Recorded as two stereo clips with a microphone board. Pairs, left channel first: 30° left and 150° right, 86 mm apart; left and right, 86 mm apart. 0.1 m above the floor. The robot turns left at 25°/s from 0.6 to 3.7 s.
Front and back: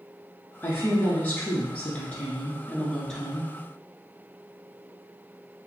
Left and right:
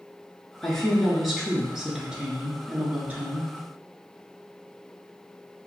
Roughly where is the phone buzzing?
No phone buzzing in this recording.